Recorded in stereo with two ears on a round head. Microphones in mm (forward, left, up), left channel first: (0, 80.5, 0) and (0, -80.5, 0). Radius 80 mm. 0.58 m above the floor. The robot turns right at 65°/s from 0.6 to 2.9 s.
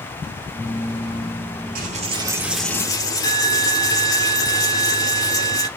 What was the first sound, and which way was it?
A dropped coin, 55° right.